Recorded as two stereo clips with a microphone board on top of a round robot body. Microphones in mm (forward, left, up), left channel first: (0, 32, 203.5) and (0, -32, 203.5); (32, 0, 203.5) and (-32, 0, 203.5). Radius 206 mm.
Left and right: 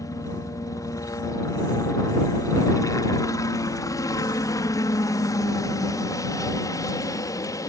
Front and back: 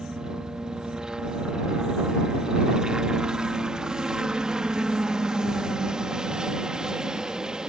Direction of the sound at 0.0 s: 105° left.